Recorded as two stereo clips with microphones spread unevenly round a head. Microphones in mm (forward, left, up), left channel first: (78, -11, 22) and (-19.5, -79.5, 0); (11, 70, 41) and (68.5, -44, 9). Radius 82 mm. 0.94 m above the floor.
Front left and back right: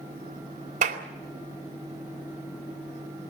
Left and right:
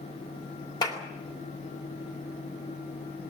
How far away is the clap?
About 2.5 m.